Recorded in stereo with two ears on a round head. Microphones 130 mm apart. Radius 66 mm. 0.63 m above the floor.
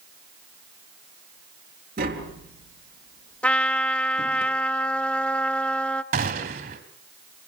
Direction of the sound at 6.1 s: 75° right (ahead or behind).